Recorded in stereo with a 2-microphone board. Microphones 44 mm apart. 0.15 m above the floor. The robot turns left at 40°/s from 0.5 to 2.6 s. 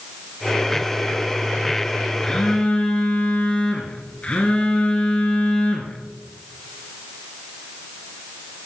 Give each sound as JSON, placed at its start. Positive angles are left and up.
{"t": 2.2, "sound": "a phone buzzing", "side_deg": 15, "distance_m": 1.7}